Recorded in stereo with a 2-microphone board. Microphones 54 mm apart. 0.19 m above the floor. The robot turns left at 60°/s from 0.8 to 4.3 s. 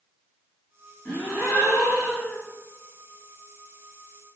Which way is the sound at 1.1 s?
155° left.